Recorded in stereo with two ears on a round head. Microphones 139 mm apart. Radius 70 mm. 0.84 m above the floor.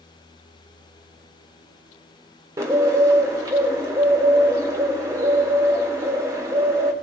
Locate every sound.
2.6 s a bird: 20° right (ahead or behind), 1.4 m